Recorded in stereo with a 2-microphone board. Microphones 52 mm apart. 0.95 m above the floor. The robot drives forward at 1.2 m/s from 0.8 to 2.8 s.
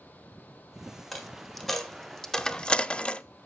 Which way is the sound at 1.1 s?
5° left (ahead or behind).